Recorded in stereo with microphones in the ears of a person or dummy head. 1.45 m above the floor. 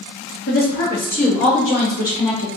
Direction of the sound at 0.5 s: 40° left (ahead or behind).